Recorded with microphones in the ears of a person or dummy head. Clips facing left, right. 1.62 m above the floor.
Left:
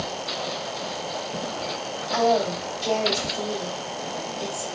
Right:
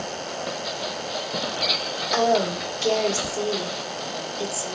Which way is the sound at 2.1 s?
75° right (ahead or behind).